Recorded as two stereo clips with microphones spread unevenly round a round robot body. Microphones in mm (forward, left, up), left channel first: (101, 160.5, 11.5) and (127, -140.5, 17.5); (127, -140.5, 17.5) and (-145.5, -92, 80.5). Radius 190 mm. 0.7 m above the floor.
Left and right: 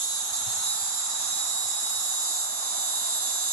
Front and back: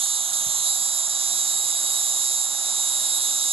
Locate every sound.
0.0 s an insect: 120° right, 0.8 m